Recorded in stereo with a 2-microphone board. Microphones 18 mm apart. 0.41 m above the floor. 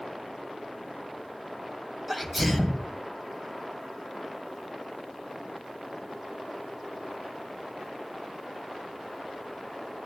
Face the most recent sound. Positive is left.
turn(degrees=-5)  # may be behind; listen again after turning